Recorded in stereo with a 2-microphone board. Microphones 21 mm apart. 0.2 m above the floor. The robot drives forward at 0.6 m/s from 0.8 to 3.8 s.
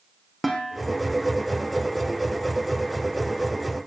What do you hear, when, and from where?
0.4 s dishes clattering: 5° right (ahead or behind), 4.5 m